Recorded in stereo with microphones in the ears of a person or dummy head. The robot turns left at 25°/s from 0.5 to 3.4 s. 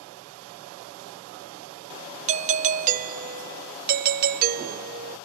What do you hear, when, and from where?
2.3 s a doorbell: 30° right (ahead or behind), 0.6 m; by 5.2 s 40° right (ahead or behind), 0.6 m